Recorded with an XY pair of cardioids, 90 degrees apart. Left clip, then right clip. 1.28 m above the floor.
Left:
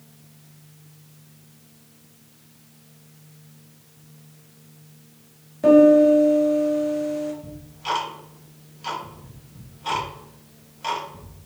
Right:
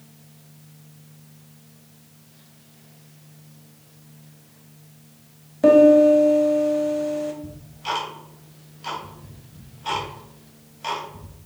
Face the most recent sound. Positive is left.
turn(degrees=5)